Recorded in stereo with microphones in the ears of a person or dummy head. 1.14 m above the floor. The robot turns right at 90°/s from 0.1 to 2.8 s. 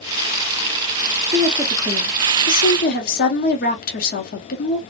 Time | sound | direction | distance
1.3 | a woman speaking | 35° right | 0.8 m